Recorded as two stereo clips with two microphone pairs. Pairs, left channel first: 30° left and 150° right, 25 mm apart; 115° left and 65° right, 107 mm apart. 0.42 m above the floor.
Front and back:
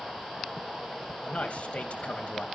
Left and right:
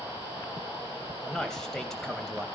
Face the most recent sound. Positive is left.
turn(degrees=30)